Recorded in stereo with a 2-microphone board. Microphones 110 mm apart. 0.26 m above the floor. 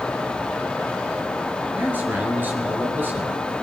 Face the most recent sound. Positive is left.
turn(degrees=-15)  # may be behind; listen again after turning